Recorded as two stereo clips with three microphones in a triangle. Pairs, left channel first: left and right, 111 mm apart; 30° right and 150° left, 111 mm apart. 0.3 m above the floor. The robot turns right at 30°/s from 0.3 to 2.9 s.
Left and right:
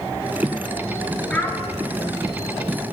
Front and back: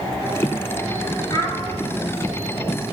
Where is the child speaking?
10° left, 2.5 m; by 1.6 s 20° left, 2.5 m.